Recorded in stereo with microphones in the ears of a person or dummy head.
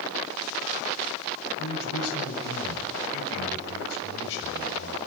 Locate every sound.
1.6 s a man speaking: 75° left (ahead or behind), 7.5 m